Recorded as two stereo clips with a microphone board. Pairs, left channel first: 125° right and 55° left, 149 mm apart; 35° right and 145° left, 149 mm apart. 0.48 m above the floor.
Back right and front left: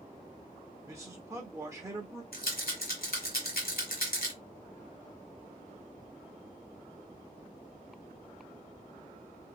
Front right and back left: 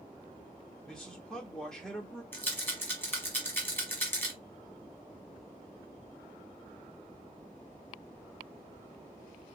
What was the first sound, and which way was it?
A man speaking, 45° left.